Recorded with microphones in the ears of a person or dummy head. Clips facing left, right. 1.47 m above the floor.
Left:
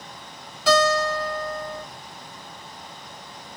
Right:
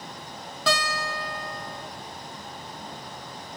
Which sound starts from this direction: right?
A guitar, at 0.7 s.